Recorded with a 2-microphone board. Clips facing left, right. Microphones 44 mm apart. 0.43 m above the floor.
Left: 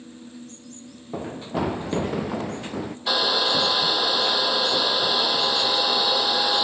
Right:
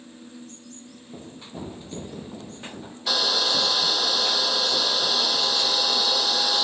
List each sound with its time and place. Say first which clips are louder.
1.1 s running footsteps: left 12 dB; 65° left (ahead or behind); by 3.0 s 80° left
3.1 s a hair dryer: left 2 dB; 15° left (ahead or behind)